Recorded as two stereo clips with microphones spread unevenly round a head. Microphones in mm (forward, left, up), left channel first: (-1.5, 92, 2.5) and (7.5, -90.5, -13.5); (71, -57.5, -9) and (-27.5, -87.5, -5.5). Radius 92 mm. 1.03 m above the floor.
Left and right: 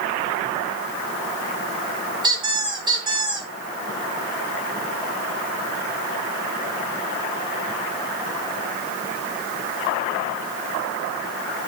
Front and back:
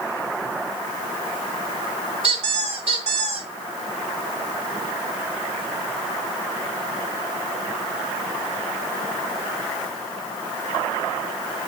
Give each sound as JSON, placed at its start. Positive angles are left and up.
{"t": 2.2, "sound": "a squeak", "azimuth_deg": -155, "distance_m": 2.0}